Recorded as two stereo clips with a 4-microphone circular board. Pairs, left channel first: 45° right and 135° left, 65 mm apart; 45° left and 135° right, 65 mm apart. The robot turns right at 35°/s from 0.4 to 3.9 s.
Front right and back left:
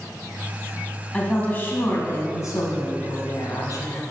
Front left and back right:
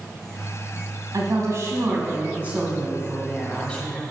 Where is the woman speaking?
120° right, 1.9 m; by 4.0 s 20° right, 1.9 m.